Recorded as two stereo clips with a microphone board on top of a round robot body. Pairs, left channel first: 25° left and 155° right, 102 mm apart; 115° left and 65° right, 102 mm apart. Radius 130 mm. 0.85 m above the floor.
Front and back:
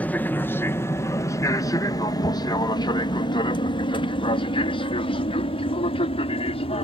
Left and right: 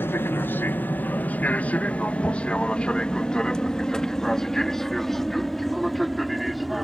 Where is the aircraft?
75° left; by 6.8 s 20° left.